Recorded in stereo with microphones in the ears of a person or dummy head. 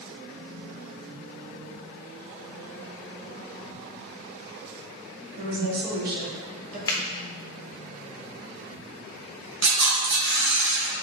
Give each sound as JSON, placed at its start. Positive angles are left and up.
{"t": 5.4, "sound": "a woman speaking", "side_deg": -65, "distance_m": 1.3}
{"t": 6.9, "sound": "a finger snap", "side_deg": 20, "distance_m": 0.7}
{"t": 9.6, "sound": "a camera shutter", "side_deg": -70, "distance_m": 1.7}